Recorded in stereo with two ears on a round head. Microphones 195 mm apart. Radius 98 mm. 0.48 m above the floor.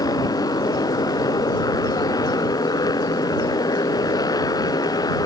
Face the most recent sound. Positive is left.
turn(degrees=15)  # may be behind; listen again after turning